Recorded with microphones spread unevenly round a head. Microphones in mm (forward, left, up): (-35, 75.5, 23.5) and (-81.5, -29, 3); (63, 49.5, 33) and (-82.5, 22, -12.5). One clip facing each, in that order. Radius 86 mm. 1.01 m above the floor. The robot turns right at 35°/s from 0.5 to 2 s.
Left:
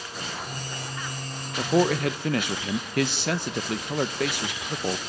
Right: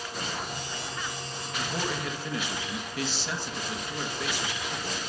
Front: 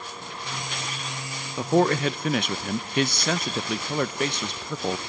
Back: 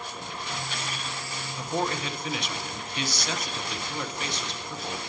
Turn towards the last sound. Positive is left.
turn(degrees=45)